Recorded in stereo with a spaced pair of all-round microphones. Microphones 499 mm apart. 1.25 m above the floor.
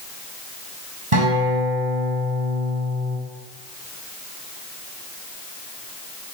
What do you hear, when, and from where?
1.1 s a guitar: 85° right, 6.5 m